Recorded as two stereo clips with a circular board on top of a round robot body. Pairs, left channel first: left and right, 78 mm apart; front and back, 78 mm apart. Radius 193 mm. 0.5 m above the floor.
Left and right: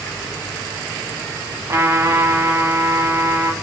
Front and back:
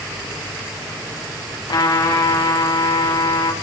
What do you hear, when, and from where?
1.7 s a trumpet: 30° right, 4 m